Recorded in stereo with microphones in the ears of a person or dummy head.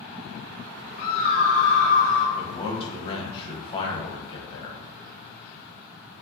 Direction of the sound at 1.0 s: 40° left (ahead or behind).